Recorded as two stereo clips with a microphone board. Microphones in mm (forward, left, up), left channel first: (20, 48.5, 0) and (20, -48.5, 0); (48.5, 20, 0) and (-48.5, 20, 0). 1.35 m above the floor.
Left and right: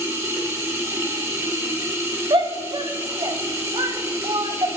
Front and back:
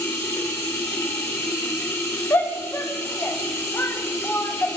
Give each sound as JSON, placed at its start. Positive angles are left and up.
{"t": 0.0, "sound": "running water", "azimuth_deg": -45, "distance_m": 1.2}
{"t": 2.3, "sound": "a shout", "azimuth_deg": -60, "distance_m": 0.7}